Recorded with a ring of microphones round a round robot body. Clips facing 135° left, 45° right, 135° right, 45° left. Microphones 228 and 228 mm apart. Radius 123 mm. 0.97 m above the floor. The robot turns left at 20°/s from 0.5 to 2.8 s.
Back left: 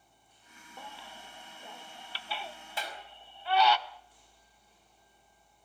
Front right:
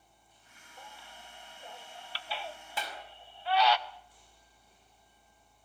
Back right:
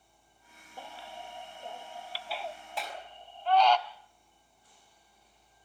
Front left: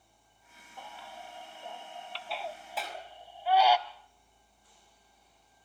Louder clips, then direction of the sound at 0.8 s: Back left 4 dB, back right 2 dB; 165° left.